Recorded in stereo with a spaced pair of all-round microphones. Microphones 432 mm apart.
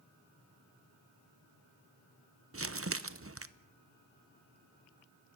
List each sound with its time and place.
2.5 s crumpling: 30° right (ahead or behind), 0.8 m